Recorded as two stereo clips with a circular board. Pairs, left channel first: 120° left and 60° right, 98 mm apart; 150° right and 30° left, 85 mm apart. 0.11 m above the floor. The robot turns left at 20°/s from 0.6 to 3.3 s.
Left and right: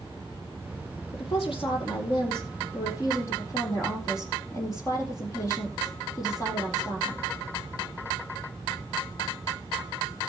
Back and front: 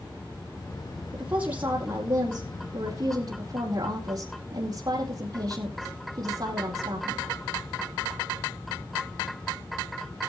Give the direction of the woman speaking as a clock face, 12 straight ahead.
8 o'clock.